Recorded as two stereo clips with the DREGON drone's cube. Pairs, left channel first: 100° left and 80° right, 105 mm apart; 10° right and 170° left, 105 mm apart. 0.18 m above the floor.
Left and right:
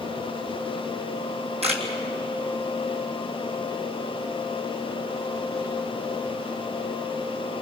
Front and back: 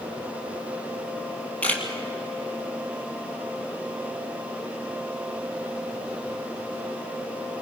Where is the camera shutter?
90° right, 3 m.